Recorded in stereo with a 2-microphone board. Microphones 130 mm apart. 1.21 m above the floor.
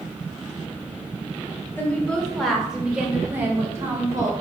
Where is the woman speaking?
15° left (ahead or behind), 2 m; by 4.3 s 30° right (ahead or behind), 3 m.